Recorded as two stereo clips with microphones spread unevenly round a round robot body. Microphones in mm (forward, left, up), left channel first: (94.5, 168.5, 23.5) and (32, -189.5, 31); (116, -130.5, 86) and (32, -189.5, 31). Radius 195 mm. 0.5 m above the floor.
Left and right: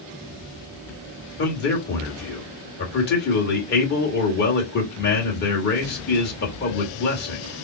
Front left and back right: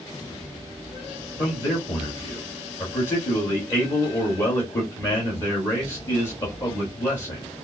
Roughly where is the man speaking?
Behind left.